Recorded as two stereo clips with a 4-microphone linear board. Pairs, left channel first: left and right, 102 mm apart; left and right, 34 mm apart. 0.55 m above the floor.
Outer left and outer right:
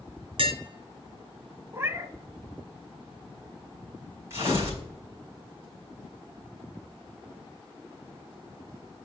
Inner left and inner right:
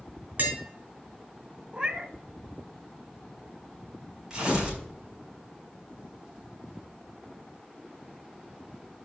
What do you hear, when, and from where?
0.4 s tapping: 60° right (ahead or behind), 2.5 m
1.7 s a cat meowing: 30° right (ahead or behind), 0.7 m
4.3 s tearing paper: 25° right (ahead or behind), 4.5 m